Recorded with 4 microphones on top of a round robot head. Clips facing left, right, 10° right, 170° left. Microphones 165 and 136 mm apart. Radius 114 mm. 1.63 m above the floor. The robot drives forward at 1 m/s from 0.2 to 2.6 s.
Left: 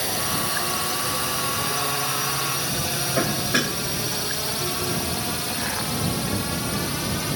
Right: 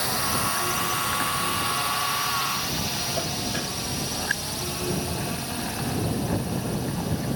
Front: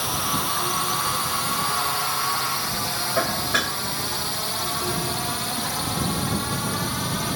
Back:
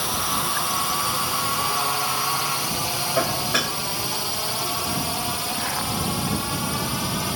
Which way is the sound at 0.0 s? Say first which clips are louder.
Left 1 dB, even; 80° left.